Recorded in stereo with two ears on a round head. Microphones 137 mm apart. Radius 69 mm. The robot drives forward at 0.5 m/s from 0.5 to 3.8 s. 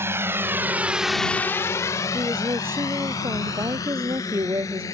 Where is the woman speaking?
15° right (ahead or behind).